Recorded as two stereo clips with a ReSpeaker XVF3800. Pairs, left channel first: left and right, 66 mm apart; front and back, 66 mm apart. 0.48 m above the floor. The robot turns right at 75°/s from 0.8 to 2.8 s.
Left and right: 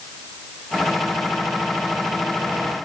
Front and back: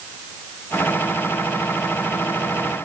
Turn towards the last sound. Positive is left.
No sound to turn to.